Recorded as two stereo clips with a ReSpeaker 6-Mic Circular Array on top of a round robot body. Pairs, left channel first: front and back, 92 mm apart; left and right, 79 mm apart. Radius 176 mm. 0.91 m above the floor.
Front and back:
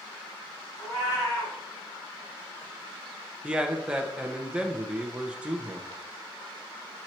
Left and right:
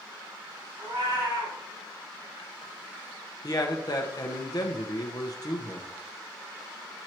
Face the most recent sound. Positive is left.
turn(degrees=105)